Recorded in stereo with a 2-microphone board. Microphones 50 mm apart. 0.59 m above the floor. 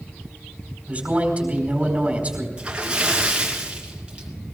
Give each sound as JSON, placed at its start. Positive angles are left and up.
{"t": 0.9, "sound": "a man speaking", "side_deg": -25, "distance_m": 4.5}
{"t": 2.6, "sound": "a splash", "side_deg": -20, "distance_m": 3.0}